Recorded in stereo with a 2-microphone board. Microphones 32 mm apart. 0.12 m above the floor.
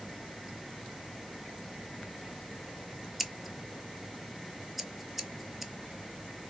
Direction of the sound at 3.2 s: 5° right (ahead or behind).